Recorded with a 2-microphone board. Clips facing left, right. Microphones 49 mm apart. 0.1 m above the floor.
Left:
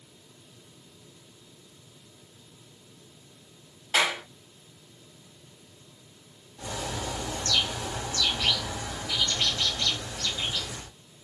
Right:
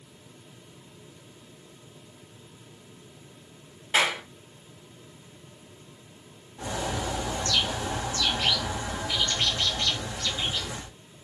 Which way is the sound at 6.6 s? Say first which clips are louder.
Right 3 dB; 30° right (ahead or behind).